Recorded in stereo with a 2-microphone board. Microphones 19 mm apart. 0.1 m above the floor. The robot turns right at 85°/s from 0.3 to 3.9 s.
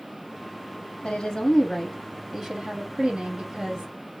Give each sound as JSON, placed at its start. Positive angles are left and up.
{"t": 1.0, "sound": "a woman speaking", "azimuth_deg": 90, "distance_m": 4.0}